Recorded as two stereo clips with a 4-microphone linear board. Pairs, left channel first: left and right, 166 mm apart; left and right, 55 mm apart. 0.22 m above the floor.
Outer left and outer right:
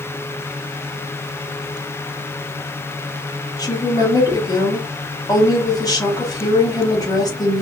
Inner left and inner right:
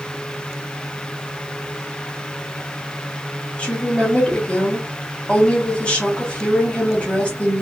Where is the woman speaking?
25° left (ahead or behind), 1.0 m.